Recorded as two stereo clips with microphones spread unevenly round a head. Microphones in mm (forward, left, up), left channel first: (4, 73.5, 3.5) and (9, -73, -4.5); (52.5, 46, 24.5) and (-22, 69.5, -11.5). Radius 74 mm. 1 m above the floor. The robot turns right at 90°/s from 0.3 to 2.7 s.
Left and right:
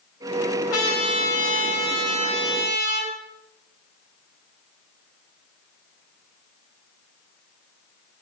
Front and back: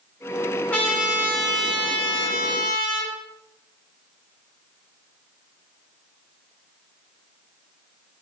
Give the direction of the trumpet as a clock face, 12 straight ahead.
10 o'clock.